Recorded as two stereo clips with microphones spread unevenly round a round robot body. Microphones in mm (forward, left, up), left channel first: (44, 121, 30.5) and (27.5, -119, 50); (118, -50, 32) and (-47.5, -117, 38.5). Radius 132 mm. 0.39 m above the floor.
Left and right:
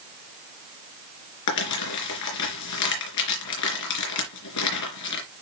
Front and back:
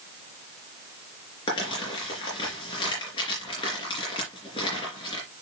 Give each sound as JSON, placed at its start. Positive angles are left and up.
{"t": 1.5, "sound": "crumpling", "azimuth_deg": 95, "distance_m": 3.5}